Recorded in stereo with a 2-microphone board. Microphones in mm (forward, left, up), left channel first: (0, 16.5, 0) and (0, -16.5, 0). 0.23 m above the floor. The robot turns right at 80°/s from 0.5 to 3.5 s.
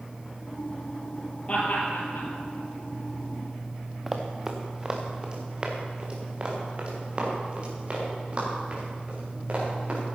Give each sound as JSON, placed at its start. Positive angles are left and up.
{"t": 1.5, "sound": "laughter", "side_deg": 35, "distance_m": 5.0}
{"t": 4.1, "sound": "running footsteps", "side_deg": -10, "distance_m": 1.8}